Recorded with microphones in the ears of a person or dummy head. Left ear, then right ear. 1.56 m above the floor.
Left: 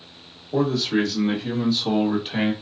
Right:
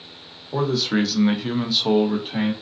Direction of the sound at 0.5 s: 60° right (ahead or behind).